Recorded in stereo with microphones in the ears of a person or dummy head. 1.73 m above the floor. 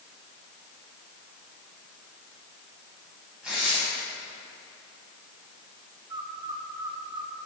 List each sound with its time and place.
3.4 s tearing paper: centre (ahead or behind), 5 m
6.1 s a bird: 15° right (ahead or behind), 1.3 m